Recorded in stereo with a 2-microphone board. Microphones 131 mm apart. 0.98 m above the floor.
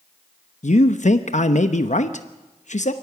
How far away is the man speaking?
About 0.9 m.